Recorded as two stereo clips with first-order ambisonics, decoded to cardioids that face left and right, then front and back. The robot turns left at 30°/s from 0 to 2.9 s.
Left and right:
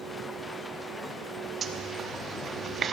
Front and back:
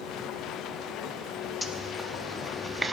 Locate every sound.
1.6 s a zipper: 75° right, 0.7 m; by 2.9 s 110° right, 0.7 m